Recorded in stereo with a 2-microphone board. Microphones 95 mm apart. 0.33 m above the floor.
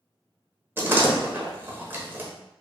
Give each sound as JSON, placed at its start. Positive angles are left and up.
{"t": 0.8, "sound": "a door slam", "side_deg": -25, "distance_m": 0.8}